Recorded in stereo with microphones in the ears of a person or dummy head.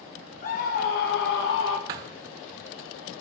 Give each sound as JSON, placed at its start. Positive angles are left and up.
{"t": 0.4, "sound": "a scream", "side_deg": 40, "distance_m": 1.7}
{"t": 1.9, "sound": "a thud", "side_deg": -20, "distance_m": 0.5}